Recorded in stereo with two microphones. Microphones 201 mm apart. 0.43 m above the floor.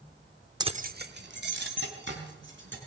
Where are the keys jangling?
20° right (ahead or behind), 0.5 m; by 2.8 s 70° right (ahead or behind), 3.5 m.